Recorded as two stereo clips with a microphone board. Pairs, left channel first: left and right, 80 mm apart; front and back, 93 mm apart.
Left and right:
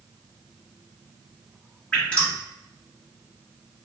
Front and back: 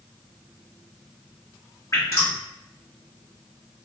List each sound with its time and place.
1.9 s dripping: 30° left, 1.3 m